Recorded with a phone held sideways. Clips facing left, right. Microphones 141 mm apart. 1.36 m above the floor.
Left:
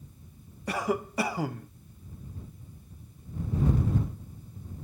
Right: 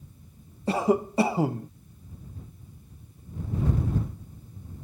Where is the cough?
25° right (ahead or behind).